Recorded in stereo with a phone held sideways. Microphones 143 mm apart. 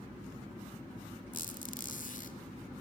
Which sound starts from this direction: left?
A squeak, at 1.3 s.